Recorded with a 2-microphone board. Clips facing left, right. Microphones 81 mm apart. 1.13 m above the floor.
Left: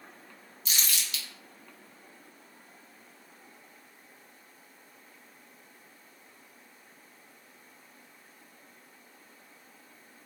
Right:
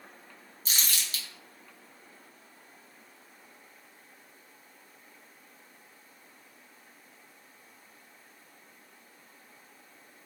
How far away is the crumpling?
About 0.6 m.